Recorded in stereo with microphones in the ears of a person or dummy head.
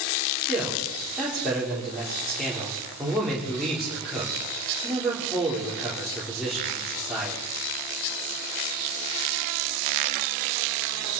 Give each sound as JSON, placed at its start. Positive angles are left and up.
{"t": 0.5, "sound": "a man speaking", "side_deg": 0, "distance_m": 4.0}